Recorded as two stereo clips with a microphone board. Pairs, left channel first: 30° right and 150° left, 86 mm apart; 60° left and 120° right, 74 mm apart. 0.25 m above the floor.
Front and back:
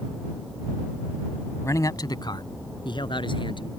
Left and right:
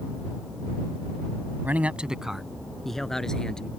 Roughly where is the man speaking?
Ahead right.